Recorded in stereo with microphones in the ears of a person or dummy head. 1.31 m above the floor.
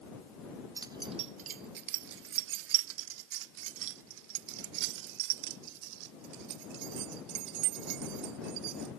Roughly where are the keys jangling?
Centre.